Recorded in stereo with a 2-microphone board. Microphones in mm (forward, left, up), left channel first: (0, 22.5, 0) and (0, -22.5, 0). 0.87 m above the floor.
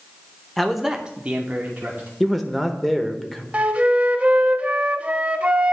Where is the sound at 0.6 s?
5° left (ahead or behind), 0.7 m; by 2.1 s 35° right (ahead or behind), 1.2 m.